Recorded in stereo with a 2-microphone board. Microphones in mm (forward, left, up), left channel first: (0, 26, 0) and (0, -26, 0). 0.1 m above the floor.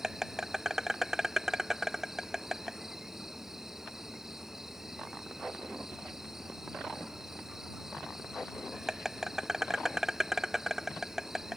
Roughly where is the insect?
Centre.